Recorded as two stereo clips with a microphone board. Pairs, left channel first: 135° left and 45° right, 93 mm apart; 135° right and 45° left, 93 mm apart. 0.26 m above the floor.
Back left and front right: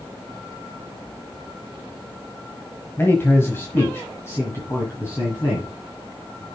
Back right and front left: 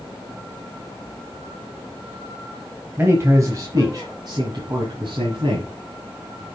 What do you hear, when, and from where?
3.0 s a man speaking: 90° left, 1.2 m; by 6.5 s 75° left, 3 m